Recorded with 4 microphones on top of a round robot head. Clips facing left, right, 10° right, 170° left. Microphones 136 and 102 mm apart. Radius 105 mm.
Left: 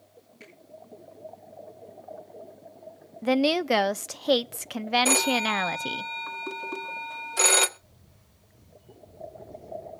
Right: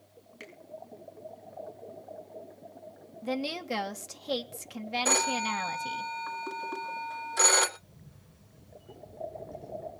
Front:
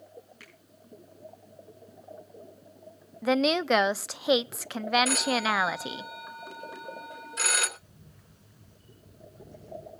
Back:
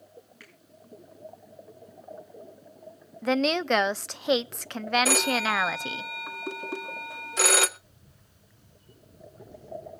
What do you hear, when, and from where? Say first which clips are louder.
0.4 s a finger snap: right 3 dB, even; 80° right, 7.5 m
3.2 s a woman speaking: left 10 dB, even; 80° left, 0.6 m
5.0 s a phone ringing: left 5 dB, back 1 dB; 165° left, 1.8 m
7.8 s a camera shutter: right 3 dB, front 3 dB; 50° right, 6 m